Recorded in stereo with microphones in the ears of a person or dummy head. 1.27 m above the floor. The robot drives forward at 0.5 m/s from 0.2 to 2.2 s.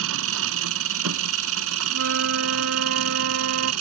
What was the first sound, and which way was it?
An engine running, 80° right.